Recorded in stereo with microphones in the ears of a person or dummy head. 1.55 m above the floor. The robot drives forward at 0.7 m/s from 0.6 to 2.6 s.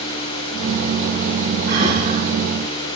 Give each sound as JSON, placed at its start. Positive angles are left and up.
{"t": 1.7, "sound": "breathing", "side_deg": -55, "distance_m": 9.5}